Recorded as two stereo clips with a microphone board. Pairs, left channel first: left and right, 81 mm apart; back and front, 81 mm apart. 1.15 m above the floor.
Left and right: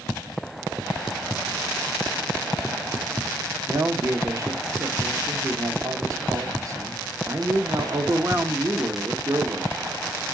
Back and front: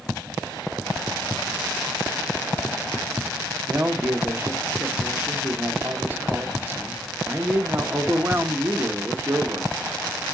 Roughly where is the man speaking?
Ahead right.